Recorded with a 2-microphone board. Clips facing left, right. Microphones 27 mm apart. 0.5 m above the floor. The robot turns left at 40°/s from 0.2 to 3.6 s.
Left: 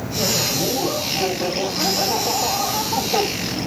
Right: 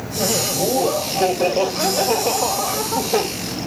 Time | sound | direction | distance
0.2 | laughter | 25° right | 2 m